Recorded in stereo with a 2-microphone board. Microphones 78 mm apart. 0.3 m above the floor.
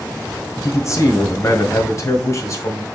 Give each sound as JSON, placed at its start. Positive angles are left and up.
{"t": 0.6, "sound": "a man speaking", "side_deg": 40, "distance_m": 1.9}